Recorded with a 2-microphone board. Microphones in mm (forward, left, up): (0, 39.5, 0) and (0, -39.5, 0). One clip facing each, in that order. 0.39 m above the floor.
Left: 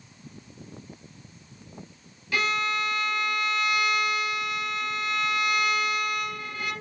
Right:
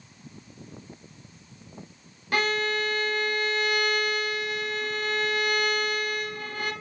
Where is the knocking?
I don't hear knocking.